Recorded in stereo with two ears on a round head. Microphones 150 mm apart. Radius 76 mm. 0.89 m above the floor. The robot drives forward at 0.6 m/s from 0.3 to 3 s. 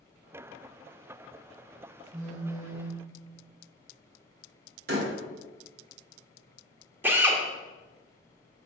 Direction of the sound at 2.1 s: 45° right (ahead or behind).